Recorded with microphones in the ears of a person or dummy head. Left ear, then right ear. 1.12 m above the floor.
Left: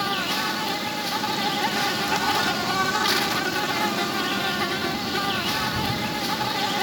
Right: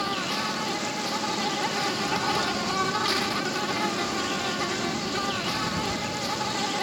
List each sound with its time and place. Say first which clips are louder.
0.0 s an insect: left 3 dB; 10° left (ahead or behind)